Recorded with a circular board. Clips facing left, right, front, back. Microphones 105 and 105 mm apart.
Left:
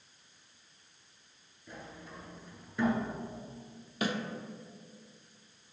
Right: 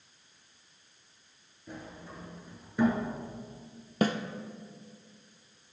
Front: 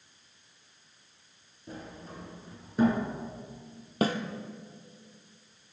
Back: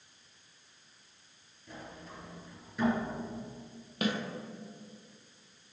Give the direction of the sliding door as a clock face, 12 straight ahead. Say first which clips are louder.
Right 3 dB, front 3 dB; 1 o'clock.